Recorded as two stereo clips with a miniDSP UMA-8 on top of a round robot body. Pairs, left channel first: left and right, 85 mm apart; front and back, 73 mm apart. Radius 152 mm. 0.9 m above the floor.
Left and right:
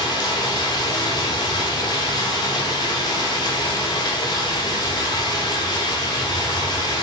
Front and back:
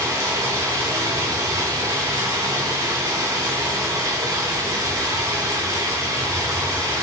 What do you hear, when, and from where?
0.0 s running water: 130° left, 0.9 m